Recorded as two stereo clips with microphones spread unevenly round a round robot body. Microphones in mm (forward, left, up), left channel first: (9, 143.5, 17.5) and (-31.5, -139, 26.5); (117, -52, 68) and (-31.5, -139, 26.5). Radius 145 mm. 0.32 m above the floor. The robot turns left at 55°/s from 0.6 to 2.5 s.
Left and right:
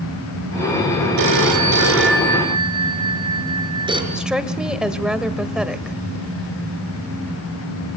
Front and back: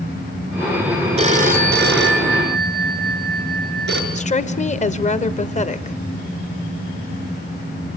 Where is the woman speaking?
10° right, 1.6 m.